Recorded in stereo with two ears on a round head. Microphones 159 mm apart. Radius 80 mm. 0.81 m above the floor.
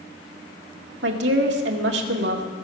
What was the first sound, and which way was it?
A woman speaking, 70° right (ahead or behind).